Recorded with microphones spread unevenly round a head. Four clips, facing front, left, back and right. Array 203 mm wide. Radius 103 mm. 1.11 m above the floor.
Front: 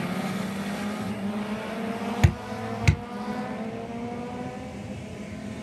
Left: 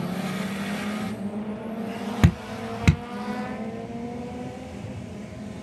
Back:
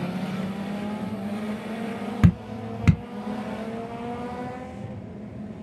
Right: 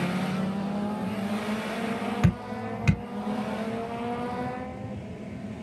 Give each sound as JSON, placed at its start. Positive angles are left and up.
{"t": 2.2, "sound": "dripping", "azimuth_deg": 115, "distance_m": 2.5}